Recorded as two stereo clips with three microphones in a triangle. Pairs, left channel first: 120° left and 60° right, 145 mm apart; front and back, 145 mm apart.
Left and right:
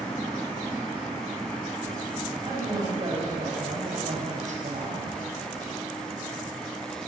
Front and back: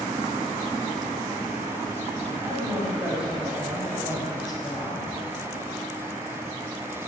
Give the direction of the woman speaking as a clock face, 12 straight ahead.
4 o'clock.